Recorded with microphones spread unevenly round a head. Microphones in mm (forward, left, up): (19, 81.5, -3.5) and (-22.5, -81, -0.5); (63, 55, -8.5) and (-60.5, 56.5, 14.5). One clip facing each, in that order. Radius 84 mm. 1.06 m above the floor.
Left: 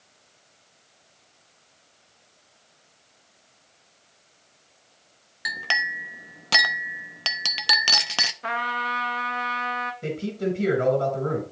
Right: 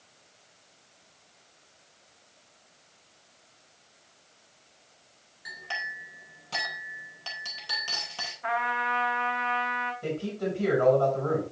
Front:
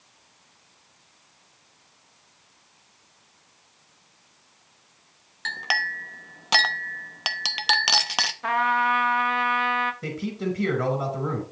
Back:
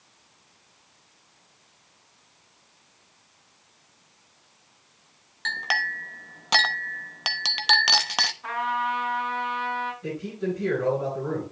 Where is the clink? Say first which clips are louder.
Left 7 dB, even; 90° left, 0.8 m.